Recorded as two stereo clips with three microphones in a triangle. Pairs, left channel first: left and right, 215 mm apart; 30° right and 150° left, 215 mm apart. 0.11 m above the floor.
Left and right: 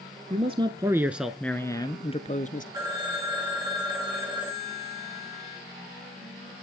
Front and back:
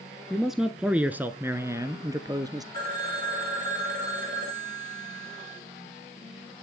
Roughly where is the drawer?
No drawer in this recording.